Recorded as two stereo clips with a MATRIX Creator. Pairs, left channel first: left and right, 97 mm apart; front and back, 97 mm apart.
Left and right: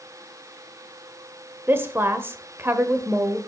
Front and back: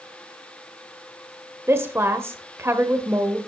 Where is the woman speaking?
140° right, 1.1 m.